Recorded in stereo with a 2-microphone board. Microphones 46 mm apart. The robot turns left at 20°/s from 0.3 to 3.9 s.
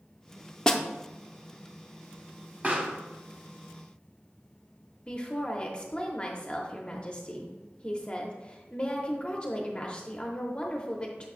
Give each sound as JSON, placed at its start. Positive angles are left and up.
{"t": 0.7, "sound": "a snare drum", "side_deg": 15, "distance_m": 0.6}
{"t": 2.6, "sound": "a pop", "side_deg": -35, "distance_m": 1.2}
{"t": 5.1, "sound": "a woman speaking", "side_deg": 25, "distance_m": 0.8}